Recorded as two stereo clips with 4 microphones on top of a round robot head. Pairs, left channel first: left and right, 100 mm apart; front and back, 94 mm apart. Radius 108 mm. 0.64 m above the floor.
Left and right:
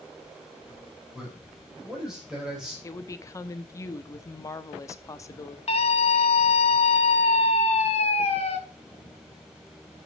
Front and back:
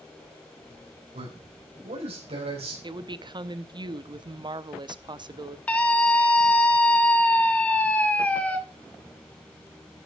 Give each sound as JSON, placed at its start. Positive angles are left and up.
{"t": 1.1, "sound": "a man speaking", "azimuth_deg": -175, "distance_m": 4.5}
{"t": 2.8, "sound": "a woman speaking", "azimuth_deg": 150, "distance_m": 0.9}
{"t": 5.7, "sound": "a scream", "azimuth_deg": 75, "distance_m": 2.5}